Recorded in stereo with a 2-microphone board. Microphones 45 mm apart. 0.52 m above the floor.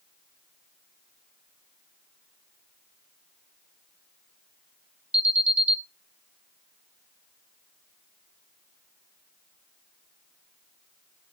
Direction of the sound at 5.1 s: 25° right (ahead or behind).